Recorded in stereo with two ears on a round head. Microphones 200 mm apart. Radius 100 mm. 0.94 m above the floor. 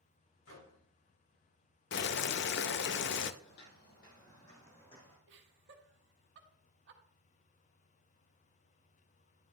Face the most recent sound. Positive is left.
turn(degrees=-55)  # may be behind; listen again after turning